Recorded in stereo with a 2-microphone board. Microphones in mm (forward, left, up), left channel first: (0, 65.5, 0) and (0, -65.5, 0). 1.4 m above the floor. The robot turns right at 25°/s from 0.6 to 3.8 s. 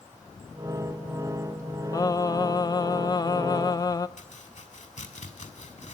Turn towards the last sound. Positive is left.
turn(degrees=65)  # may be behind; listen again after turning